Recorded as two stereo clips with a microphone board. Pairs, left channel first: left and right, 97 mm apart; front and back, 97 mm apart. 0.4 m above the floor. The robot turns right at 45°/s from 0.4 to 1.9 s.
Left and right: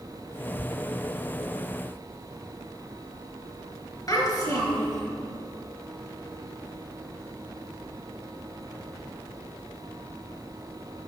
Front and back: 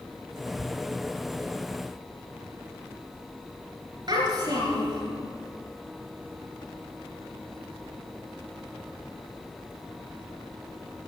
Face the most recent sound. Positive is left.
turn(degrees=140)